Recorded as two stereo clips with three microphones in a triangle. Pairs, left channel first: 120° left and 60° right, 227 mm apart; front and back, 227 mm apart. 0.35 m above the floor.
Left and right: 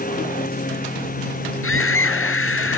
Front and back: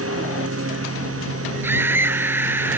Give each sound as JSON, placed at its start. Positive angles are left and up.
{"t": 0.0, "sound": "a lawn mower", "azimuth_deg": 170}
{"t": 1.6, "sound": "a scream", "azimuth_deg": 100}